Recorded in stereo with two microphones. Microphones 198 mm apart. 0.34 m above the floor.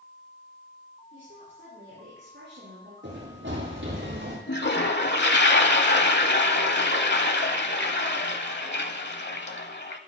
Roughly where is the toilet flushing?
Left.